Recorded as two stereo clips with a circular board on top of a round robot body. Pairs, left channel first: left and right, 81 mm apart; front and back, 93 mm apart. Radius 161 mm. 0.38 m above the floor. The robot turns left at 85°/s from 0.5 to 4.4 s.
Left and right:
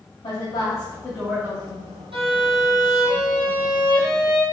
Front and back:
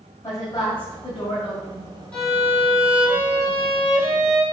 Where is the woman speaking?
65° left, 3.5 m; by 1.9 s 55° right, 3.5 m.